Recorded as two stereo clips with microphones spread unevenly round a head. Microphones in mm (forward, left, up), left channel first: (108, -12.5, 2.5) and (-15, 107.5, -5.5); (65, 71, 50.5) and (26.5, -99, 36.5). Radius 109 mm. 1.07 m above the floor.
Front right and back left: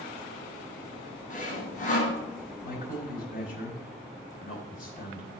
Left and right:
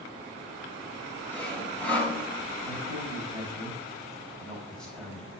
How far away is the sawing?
About 4.5 m.